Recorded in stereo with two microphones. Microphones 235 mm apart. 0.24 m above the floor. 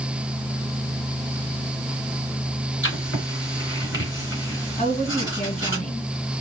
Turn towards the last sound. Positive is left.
turn(degrees=30)  # may be behind; listen again after turning